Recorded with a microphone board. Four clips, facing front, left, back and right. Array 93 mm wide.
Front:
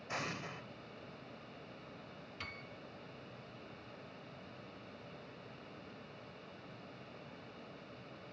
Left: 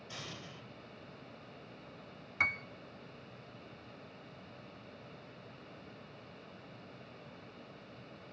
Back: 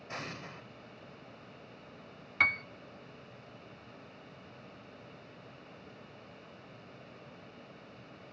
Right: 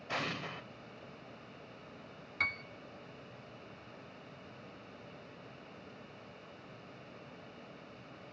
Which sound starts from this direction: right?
An explosion, at 0.1 s.